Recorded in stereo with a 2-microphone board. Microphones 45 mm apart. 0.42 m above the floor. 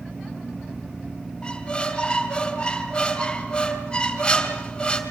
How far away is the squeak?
About 3 m.